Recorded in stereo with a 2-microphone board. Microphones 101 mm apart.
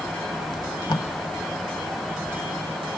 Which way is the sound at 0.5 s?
45° left (ahead or behind).